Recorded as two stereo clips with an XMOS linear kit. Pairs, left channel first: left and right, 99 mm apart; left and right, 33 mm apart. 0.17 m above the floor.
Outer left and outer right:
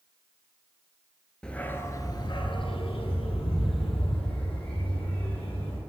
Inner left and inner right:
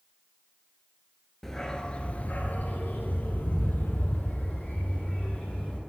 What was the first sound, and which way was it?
A dog barking, 10° left (ahead or behind).